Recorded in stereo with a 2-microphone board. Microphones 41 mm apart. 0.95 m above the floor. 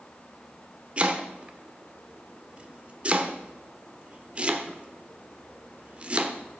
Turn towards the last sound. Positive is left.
turn(degrees=-30)  # may be behind; listen again after turning